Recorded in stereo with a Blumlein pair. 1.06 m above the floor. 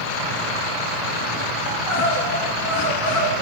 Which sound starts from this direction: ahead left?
Crying, at 1.7 s.